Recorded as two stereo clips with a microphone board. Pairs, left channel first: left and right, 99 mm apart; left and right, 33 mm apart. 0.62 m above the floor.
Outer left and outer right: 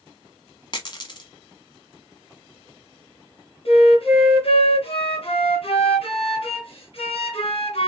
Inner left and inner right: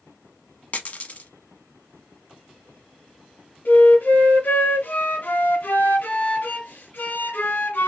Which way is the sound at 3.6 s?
80° left.